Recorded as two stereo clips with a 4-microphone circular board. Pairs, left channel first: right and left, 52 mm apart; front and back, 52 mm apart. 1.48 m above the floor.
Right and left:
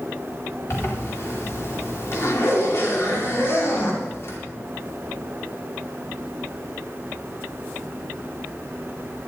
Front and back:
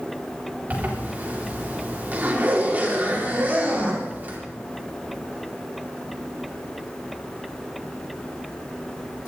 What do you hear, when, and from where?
0.7 s a zipper: 120° right, 4 m